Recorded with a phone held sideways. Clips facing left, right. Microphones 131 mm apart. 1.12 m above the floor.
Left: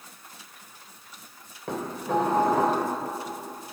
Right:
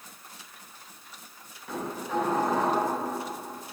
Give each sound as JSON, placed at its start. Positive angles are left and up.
{"t": 1.7, "sound": "dishes clattering", "side_deg": 75, "distance_m": 3.0}